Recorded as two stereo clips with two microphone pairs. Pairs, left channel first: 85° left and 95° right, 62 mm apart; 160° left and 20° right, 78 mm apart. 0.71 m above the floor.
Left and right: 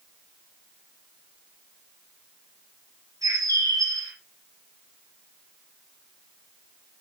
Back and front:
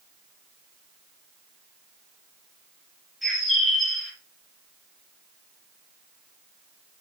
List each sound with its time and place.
3.2 s a bird: 110° right, 5 m